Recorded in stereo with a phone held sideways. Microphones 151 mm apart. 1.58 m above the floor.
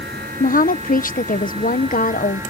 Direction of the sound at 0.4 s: 65° left (ahead or behind).